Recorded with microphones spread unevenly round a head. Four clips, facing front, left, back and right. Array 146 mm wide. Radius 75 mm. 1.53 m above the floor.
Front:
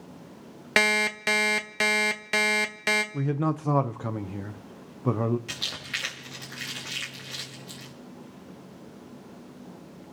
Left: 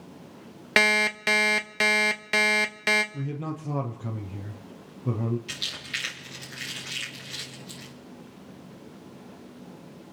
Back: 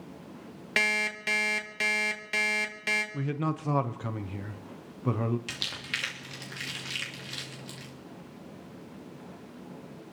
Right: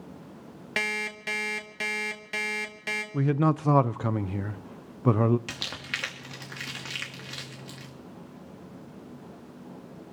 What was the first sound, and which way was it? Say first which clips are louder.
An alarm clock: left 9 dB, front 6 dB; 55° left.